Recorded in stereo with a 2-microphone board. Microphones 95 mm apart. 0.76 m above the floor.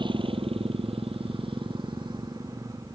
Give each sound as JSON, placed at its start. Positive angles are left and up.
{"t": 0.0, "sound": "a motorcycle", "side_deg": -60}